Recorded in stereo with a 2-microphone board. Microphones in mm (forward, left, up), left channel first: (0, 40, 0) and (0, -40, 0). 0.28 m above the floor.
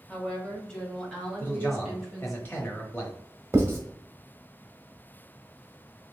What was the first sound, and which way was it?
A woman speaking, 10° left (ahead or behind).